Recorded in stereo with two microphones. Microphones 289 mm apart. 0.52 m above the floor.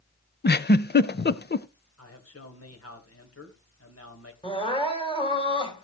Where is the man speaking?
55° left (ahead or behind), 2.5 m.